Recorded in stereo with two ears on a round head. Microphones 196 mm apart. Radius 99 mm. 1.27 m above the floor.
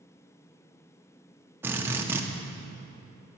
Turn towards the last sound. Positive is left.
turn(degrees=-10)  # may be behind; listen again after turning